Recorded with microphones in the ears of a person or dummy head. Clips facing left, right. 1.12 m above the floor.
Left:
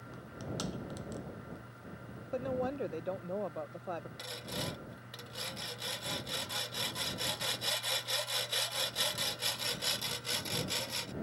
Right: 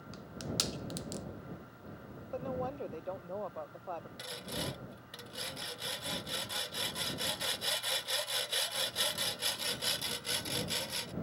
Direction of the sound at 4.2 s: Centre (ahead or behind).